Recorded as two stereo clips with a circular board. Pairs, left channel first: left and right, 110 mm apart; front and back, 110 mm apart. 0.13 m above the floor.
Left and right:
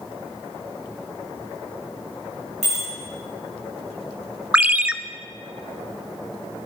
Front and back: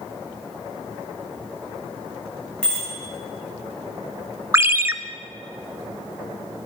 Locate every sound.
2.6 s a bicycle bell: 80° right, 6.5 m
4.5 s a ringtone: 150° right, 0.5 m